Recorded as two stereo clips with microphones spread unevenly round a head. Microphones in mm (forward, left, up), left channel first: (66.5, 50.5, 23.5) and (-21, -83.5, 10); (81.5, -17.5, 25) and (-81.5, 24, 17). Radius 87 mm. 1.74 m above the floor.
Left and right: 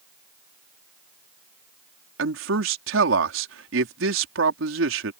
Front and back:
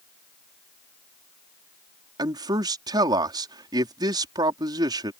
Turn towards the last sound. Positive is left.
turn(degrees=-125)